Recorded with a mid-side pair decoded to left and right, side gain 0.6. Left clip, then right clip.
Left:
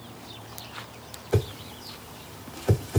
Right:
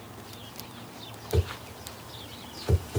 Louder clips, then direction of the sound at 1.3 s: Left 3 dB; 35° left.